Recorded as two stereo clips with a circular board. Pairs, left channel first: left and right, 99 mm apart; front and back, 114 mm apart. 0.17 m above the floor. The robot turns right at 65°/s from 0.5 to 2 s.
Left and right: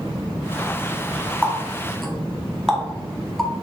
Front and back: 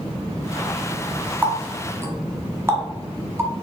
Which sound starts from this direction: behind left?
A running tap, at 1.4 s.